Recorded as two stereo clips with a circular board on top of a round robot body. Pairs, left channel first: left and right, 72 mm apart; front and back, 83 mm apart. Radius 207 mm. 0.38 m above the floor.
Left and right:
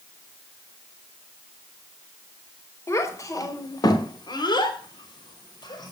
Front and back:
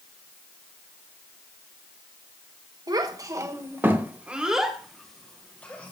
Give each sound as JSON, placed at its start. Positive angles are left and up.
{"t": 2.9, "sound": "a child speaking", "azimuth_deg": 140, "distance_m": 1.3}